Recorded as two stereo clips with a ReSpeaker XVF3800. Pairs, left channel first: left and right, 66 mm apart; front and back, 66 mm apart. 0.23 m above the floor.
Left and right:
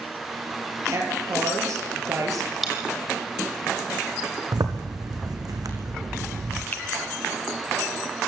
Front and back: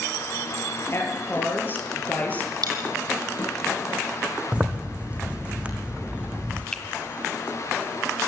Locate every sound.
0.9 s a woman speaking: 50° right, 5 m; by 2.5 s 65° right, 5.5 m
2.6 s a dropped coin: straight behind, 3.5 m
4.5 s a zipper: 105° right, 2.5 m
6.7 s a finger snap: 70° left, 1.4 m